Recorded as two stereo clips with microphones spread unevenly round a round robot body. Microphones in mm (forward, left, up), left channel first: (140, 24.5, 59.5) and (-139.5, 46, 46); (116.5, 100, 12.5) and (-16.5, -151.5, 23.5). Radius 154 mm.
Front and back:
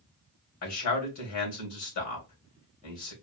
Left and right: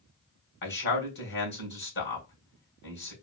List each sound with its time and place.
0.6 s a man speaking: 15° left, 3 m